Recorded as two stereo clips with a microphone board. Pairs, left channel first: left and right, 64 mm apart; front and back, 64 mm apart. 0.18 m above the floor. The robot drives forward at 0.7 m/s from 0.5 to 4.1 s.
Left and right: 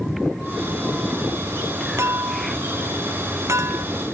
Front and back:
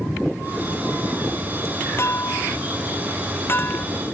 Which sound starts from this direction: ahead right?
A clink, at 2.0 s.